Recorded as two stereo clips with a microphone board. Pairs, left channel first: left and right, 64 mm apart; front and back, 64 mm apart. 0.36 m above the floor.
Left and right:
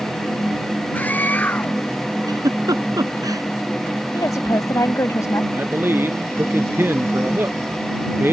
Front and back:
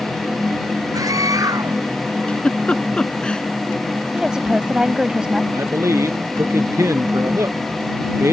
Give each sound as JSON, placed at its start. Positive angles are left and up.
{"t": 0.9, "sound": "a scream", "azimuth_deg": 155}
{"t": 2.3, "sound": "a giggle", "azimuth_deg": -75}
{"t": 4.1, "sound": "a woman speaking", "azimuth_deg": 105}
{"t": 5.5, "sound": "a man speaking", "azimuth_deg": -140}